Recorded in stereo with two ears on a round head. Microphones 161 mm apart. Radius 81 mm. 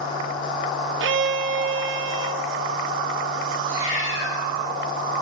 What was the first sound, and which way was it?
A violin, 70° right (ahead or behind).